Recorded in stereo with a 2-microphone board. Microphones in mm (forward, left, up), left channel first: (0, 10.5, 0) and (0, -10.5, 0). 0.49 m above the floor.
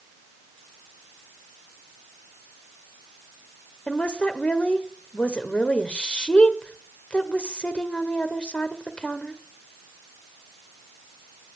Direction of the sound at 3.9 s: 60° left (ahead or behind).